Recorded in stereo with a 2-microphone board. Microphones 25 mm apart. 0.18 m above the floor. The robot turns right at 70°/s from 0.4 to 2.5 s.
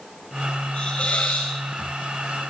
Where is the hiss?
50° left, 5 m; by 1.5 s 100° left, 5 m.